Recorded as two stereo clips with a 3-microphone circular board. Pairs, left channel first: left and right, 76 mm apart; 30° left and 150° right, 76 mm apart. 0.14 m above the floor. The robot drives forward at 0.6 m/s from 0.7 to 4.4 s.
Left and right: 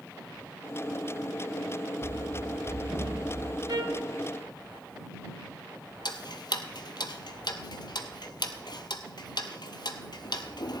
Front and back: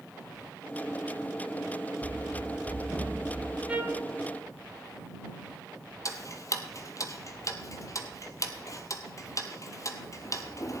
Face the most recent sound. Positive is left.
turn(degrees=75)